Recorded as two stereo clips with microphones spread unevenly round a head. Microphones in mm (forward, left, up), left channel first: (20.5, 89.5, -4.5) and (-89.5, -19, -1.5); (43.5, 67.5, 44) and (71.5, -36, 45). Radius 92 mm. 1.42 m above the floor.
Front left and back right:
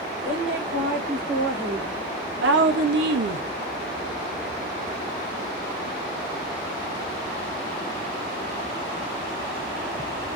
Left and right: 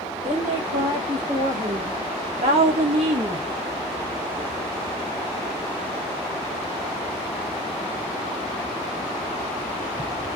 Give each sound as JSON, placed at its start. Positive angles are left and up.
{"t": 0.2, "sound": "a woman speaking", "azimuth_deg": -105, "distance_m": 2.5}